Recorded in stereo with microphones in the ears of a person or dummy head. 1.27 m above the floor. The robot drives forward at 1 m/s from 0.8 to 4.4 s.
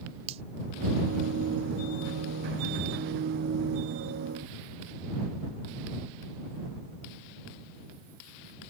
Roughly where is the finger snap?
Right.